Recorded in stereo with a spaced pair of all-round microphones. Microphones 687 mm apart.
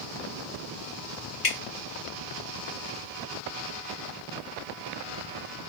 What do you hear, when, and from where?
1.4 s dripping: 50° left (ahead or behind), 0.7 m